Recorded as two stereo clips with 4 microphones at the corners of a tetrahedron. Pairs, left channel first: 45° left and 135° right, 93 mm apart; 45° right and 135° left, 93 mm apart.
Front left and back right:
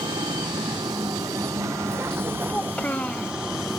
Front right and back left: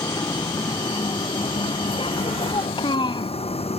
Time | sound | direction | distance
0.0 | a vehicle | 95° right | ?
2.5 | a child speaking | 30° right | ?